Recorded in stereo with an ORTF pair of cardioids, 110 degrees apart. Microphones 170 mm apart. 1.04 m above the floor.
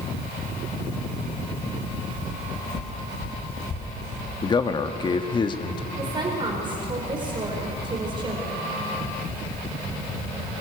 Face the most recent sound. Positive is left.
turn(degrees=-30)